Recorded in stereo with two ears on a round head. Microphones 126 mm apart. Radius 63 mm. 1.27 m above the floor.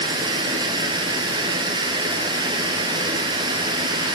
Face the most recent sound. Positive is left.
turn(degrees=-30)  # may be behind; listen again after turning